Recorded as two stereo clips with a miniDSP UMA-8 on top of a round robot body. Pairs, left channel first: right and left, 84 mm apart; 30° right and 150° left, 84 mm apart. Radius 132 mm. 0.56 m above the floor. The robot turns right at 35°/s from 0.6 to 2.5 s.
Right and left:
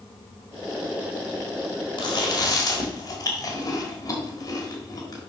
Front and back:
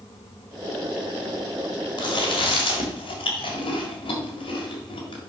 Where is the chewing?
60° right, 1.5 m; by 5.2 s 40° right, 1.5 m.